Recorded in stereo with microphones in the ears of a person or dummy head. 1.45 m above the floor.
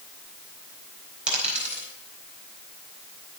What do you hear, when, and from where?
1.3 s a dropped coin: 5° right (ahead or behind), 3.5 m